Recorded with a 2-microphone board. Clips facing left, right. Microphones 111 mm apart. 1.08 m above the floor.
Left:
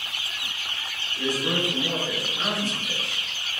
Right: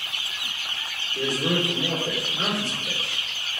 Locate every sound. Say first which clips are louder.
1.1 s a man speaking: right 2 dB; 35° right (ahead or behind), 3 m